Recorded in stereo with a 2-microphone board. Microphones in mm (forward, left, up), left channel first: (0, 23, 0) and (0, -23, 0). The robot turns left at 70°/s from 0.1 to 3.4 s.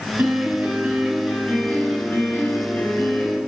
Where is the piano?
110° right, 2.5 m; by 3.4 s 25° left, 2.5 m.